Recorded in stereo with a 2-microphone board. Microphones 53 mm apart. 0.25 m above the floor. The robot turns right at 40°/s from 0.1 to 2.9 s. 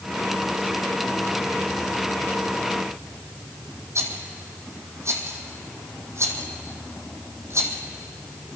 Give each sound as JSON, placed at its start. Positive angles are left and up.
{"t": 4.0, "sound": "a rattle", "side_deg": -60, "distance_m": 2.5}